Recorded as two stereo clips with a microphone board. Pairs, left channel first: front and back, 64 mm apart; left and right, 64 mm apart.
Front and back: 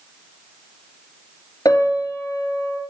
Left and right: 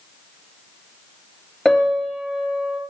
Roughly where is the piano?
Ahead.